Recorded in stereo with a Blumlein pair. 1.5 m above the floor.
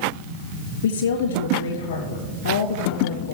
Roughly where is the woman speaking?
Ahead left.